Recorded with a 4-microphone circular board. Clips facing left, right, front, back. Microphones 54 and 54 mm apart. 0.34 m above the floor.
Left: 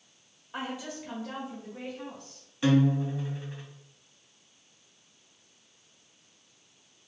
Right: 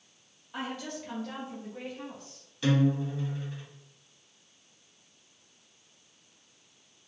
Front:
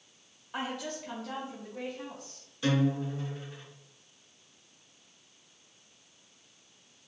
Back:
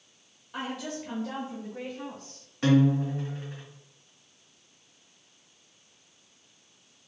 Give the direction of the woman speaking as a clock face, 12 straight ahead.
10 o'clock.